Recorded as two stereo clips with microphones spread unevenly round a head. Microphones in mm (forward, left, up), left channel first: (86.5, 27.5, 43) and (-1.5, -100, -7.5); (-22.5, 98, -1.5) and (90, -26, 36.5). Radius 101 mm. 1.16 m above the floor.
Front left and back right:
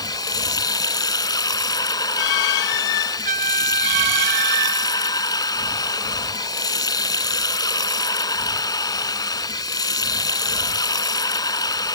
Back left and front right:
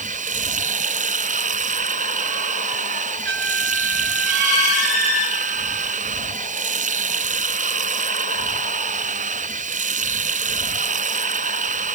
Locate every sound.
0.0 s running water: 10° right
3.2 s a trumpet: 90° right